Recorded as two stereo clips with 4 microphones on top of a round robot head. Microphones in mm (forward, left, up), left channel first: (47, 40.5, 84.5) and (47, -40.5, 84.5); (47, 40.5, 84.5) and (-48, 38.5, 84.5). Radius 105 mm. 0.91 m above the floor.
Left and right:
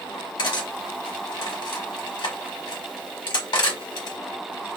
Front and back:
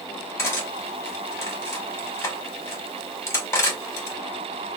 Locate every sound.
0.4 s cutlery clinking: 65° left, 1.2 m